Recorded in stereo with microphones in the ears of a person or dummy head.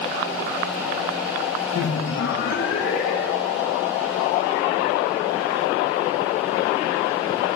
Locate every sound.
1.8 s laughter: 80° left, 0.9 m; by 3.6 s 75° left (ahead or behind), 2.5 m